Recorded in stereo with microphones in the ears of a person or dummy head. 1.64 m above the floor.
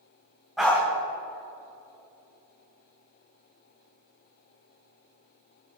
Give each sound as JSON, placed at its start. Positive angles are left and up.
{"t": 0.6, "sound": "a dog barking", "side_deg": 0, "distance_m": 2.0}